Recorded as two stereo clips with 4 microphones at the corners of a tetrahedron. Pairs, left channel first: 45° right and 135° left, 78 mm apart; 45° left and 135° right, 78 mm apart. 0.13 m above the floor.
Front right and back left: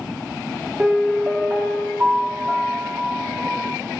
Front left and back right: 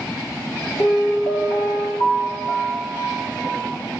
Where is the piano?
65° left, 2 m.